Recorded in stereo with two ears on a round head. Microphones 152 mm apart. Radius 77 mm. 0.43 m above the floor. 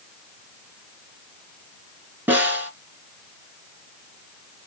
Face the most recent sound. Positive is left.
turn(degrees=-10)  # may be behind; listen again after turning